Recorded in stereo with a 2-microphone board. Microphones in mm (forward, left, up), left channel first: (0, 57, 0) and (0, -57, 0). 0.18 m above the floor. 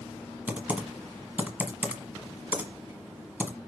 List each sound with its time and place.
0.5 s typing on a keyboard: 15° right (ahead or behind), 1.2 m